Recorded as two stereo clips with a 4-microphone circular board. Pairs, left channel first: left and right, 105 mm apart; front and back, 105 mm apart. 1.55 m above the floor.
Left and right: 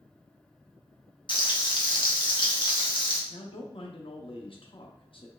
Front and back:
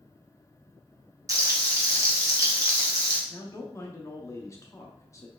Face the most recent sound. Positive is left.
turn(degrees=60)